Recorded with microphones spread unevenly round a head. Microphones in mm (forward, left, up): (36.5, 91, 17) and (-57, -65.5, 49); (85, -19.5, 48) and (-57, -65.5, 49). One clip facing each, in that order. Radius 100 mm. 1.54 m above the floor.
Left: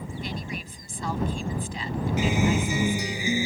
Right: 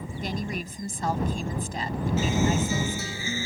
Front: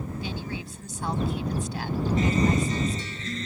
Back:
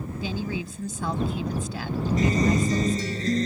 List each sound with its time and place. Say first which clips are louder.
0.2 s a woman speaking: right 6 dB, back 4 dB; 170° right
2.2 s a guitar: left 1 dB, back 2 dB; 135° left